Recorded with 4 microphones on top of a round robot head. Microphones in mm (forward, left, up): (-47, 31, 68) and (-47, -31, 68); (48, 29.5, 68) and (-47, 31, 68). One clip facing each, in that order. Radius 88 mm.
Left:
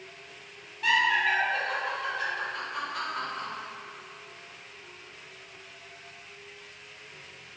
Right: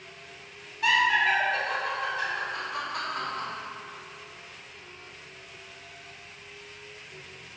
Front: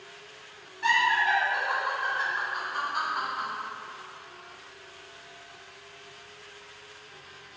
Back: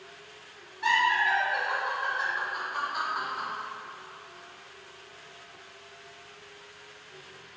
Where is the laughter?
95° right, 1.8 m.